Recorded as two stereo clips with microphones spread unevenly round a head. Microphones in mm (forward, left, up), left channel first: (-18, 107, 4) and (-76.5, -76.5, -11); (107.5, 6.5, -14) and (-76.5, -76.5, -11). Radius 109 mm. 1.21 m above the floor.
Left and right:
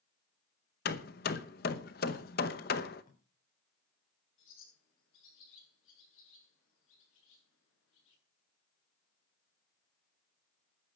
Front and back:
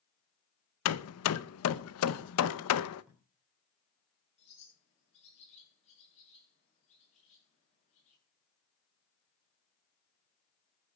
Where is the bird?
85° left, 9.5 m.